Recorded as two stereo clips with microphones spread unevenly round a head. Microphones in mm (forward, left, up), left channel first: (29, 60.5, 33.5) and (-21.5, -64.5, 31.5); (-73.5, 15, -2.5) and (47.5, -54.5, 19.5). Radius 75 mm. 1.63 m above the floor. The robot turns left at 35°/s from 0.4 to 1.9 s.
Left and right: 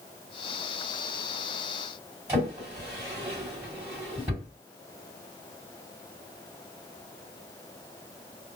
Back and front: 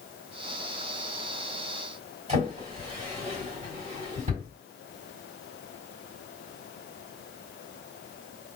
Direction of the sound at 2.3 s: 40° right.